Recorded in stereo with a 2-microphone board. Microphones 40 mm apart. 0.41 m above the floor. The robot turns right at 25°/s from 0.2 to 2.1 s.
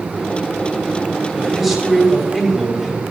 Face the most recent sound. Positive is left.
turn(degrees=10)  # may be behind; listen again after turning